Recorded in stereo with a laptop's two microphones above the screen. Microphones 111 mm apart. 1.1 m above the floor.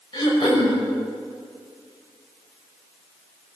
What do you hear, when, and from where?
0.1 s throat clearing: 40° left (ahead or behind), 5.5 m